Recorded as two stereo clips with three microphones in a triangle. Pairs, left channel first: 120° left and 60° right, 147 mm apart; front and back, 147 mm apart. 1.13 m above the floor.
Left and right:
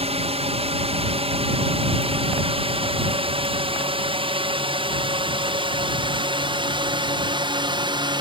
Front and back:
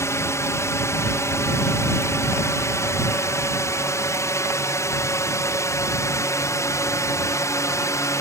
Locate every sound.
0.0 s a drone: 65° right; by 8.2 s 50° right